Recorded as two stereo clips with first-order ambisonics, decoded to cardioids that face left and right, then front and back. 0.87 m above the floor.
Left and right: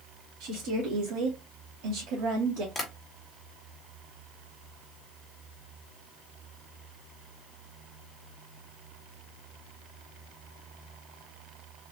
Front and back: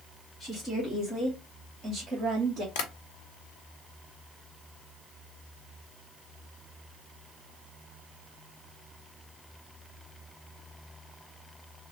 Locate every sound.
0.4 s a woman speaking: 60° right, 2 m; by 2.6 s 125° right, 1.9 m
2.8 s tapping: 5° left, 1.8 m